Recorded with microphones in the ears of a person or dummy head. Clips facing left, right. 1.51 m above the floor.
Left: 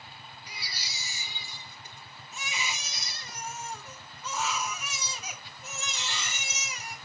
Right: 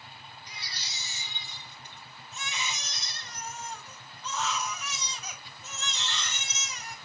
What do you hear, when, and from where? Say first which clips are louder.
0.5 s a baby crying: left 1 dB; 15° left (ahead or behind), 1.1 m